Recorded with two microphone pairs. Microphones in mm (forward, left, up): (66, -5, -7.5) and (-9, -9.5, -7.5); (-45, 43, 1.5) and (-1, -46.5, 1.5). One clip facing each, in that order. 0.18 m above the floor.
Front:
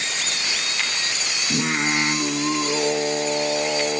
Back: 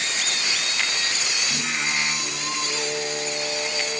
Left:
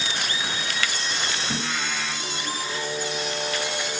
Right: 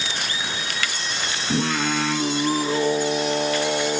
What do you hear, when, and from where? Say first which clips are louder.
1.5 s singing: front 8 dB, right 7 dB; 30° right, 0.7 m